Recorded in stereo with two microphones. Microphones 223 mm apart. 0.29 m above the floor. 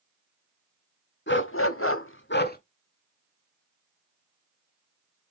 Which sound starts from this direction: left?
A dog barking, at 1.3 s.